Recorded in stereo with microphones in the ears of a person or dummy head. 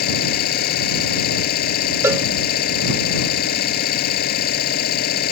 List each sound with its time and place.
0.0 s an engine running: 55° left (ahead or behind)
2.0 s a cowbell: 10° right (ahead or behind)